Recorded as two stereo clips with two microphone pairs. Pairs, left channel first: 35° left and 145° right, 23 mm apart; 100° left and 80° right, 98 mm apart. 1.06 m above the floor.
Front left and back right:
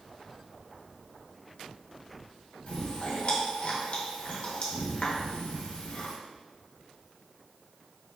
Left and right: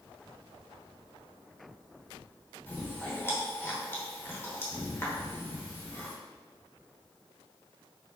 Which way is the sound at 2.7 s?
40° left.